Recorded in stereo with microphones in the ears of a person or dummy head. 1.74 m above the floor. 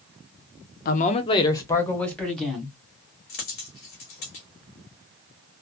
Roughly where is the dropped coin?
Left.